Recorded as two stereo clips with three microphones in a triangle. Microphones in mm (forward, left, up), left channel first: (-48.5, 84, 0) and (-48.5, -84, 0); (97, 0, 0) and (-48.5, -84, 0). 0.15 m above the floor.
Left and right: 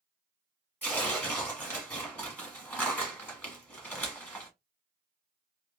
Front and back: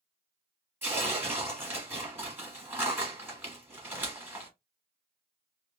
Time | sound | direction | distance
0.8 | tearing paper | 155° left | 1.5 m